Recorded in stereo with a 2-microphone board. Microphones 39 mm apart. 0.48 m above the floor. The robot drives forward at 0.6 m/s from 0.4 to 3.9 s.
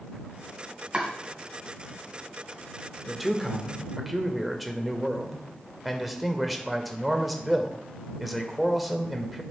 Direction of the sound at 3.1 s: 5° right (ahead or behind).